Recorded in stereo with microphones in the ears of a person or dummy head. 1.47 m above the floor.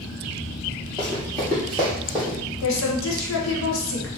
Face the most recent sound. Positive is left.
turn(degrees=80)